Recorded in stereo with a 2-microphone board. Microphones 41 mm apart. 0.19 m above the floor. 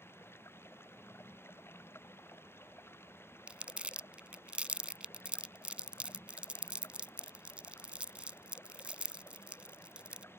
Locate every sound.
0.0 s running water: 70° left (ahead or behind)
3.5 s crumpling: 30° right (ahead or behind)